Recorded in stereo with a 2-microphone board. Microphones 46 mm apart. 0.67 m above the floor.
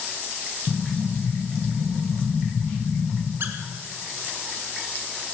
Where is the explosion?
20° left (ahead or behind), 5 m.